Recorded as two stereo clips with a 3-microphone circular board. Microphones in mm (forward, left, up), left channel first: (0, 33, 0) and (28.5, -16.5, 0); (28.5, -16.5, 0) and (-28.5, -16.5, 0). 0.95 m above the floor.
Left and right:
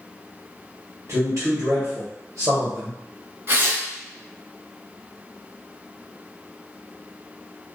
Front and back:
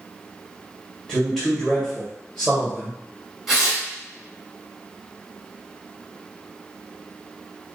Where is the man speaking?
85° right, 1.2 m.